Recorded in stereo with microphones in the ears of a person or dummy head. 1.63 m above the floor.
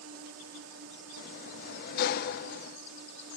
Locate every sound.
0.0 s a drone: 75° right (ahead or behind)
1.2 s a sliding door: 55° left (ahead or behind)